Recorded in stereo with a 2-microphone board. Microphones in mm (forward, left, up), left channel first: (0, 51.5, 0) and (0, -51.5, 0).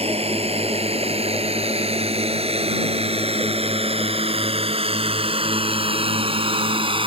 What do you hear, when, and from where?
0.0 s a drone: 75° right (ahead or behind); by 7.1 s 60° right (ahead or behind)